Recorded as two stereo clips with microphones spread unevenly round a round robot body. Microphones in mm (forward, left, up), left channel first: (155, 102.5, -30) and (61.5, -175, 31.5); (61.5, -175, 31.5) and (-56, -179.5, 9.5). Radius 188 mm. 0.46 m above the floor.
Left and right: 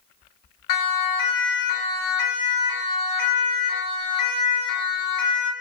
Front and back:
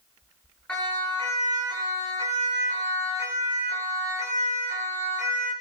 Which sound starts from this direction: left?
A siren, at 0.7 s.